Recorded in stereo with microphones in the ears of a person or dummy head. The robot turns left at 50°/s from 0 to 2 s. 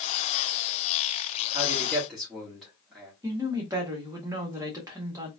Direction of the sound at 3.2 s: 15° right (ahead or behind).